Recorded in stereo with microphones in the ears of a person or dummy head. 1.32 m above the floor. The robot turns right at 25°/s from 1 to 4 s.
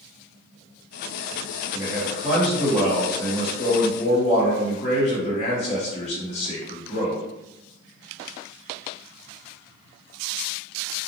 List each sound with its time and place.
1.7 s a man speaking: 30° right, 1.1 m; by 7.2 s 30° left, 1.1 m